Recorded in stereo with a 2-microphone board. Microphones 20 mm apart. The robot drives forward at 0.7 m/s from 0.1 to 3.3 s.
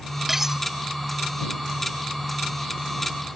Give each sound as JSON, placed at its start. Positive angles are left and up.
{"t": 0.3, "sound": "cutlery clinking", "side_deg": -20}